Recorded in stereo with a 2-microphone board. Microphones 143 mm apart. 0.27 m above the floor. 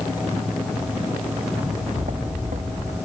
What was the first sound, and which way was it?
Footsteps, 60° right (ahead or behind).